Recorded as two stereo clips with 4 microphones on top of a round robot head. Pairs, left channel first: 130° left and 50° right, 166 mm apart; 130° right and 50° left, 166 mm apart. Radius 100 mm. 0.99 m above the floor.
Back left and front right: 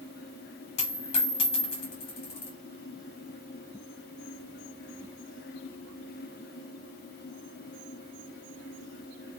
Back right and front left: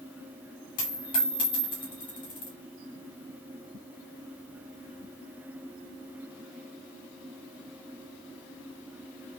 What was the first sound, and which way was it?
A dropped coin, 175° left.